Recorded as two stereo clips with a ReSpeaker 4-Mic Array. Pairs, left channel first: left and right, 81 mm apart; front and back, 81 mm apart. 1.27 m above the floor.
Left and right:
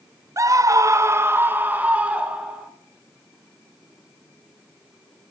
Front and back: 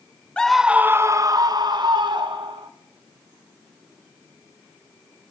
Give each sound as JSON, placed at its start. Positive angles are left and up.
{"t": 0.4, "sound": "a scream", "azimuth_deg": -70, "distance_m": 0.6}